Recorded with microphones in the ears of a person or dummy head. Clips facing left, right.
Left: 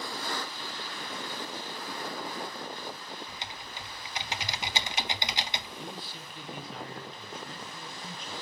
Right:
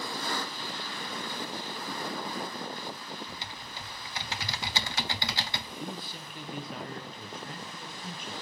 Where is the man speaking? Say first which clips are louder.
Right 2 dB; 50° right (ahead or behind), 2 m.